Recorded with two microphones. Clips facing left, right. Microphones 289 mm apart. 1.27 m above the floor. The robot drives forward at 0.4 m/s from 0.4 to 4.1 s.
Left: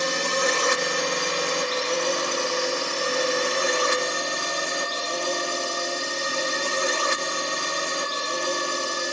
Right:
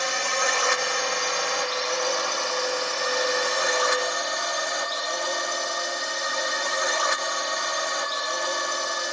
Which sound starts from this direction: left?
A drone, at 0.0 s.